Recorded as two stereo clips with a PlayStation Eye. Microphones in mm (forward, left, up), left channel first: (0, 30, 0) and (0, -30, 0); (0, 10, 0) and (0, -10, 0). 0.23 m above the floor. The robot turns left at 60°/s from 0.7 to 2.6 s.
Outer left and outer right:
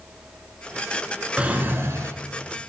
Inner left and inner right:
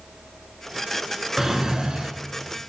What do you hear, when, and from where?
1.4 s a drawer: 20° right, 0.6 m; by 2.1 s 65° right, 0.6 m